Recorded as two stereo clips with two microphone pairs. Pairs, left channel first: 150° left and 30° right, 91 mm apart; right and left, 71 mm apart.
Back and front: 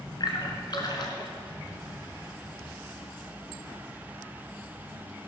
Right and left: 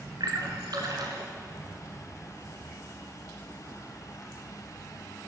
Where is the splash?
115° left, 2.0 m.